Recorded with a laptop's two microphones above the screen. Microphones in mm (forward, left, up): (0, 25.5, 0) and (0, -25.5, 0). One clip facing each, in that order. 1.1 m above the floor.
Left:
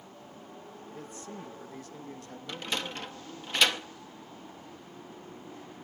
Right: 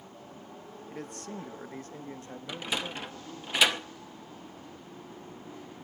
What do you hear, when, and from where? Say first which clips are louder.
0.9 s a man speaking: right 4 dB; 85° right, 0.9 m; by 3.5 s 10° right (ahead or behind), 2.5 m
2.5 s a sliding door: right 1 dB; 10° right (ahead or behind), 0.8 m